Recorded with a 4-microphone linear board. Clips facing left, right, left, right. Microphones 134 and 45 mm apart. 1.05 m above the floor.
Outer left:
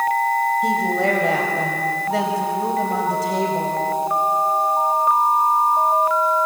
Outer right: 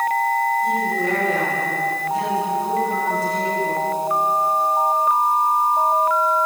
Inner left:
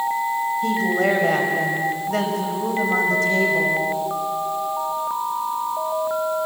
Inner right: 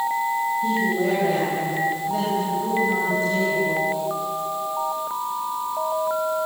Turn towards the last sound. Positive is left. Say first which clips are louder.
# outer left 2 dB, inner left 2 dB
turn(degrees=80)